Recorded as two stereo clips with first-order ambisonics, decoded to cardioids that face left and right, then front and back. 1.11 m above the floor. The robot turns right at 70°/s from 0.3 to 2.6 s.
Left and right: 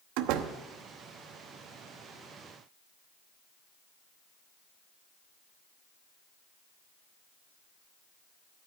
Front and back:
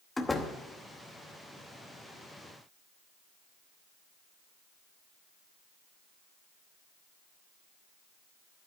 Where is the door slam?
85° right, 0.9 m; by 0.5 s 65° right, 0.9 m.